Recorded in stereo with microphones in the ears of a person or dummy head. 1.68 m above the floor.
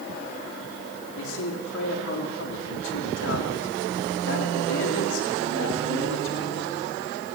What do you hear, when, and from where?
1.2 s a man speaking: 80° left, 3.5 m